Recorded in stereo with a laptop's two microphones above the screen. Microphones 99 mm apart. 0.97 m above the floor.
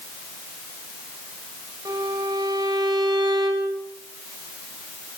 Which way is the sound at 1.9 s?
45° right (ahead or behind).